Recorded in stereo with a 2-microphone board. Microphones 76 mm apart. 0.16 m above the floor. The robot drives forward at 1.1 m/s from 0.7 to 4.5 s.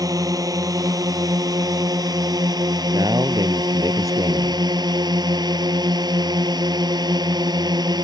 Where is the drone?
50° right (ahead or behind); by 8.1 s 65° right (ahead or behind).